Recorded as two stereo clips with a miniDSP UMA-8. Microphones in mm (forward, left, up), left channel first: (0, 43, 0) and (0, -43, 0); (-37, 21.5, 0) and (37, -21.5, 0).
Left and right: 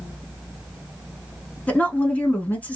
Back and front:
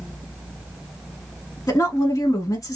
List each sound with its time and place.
1.7 s a woman speaking: 155° left, 1.3 m